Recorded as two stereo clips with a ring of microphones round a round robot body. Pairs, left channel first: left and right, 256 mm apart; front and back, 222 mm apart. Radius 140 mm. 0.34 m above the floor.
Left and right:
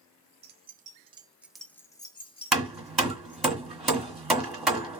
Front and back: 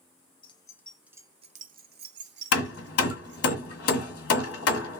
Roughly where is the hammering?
Ahead.